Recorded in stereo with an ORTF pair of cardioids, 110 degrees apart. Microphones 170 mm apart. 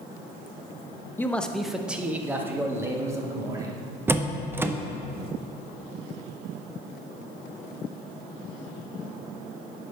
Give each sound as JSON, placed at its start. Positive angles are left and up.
{"t": 1.2, "sound": "a man speaking", "azimuth_deg": 10, "distance_m": 0.6}
{"t": 4.1, "sound": "a door slam", "azimuth_deg": -15, "distance_m": 0.6}